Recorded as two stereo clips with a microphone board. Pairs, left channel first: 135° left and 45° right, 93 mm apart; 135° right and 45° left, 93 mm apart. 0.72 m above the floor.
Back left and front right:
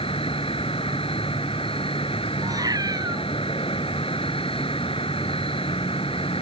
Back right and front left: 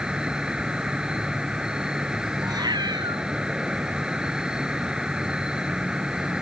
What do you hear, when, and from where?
0.0 s an insect: 130° left
2.4 s a cat meowing: 5° left